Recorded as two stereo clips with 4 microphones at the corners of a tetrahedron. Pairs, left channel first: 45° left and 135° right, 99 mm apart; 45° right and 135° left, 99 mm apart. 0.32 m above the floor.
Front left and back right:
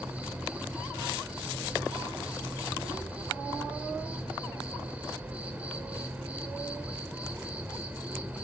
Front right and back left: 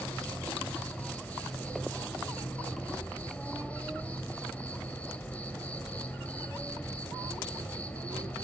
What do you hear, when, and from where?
0.0 s an insect: 85° right, 1.6 m